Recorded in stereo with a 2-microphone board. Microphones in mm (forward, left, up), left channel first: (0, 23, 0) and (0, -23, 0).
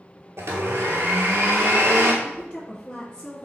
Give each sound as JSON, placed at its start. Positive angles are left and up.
{"t": 0.4, "sound": "a blender", "side_deg": -75, "distance_m": 0.8}
{"t": 2.2, "sound": "a woman speaking", "side_deg": 20, "distance_m": 1.1}